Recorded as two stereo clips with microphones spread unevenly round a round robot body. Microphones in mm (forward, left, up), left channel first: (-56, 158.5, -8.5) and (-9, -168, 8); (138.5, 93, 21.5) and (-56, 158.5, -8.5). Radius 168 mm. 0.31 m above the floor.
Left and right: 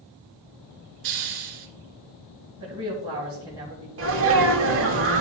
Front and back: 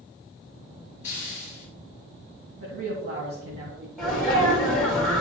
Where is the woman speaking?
155° right, 2 m.